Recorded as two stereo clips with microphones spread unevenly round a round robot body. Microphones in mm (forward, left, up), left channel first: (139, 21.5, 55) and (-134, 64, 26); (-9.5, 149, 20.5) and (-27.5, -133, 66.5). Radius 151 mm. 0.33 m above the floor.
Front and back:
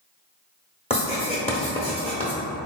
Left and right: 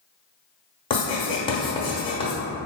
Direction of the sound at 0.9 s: 50° left.